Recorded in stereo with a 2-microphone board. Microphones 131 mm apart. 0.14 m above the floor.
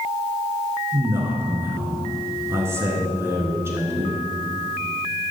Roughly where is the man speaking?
Centre.